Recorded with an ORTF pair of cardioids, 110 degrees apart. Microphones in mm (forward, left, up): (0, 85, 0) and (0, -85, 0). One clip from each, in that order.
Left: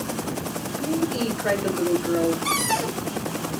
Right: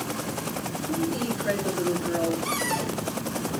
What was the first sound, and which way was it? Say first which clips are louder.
A woman speaking: left 4 dB; 60° left.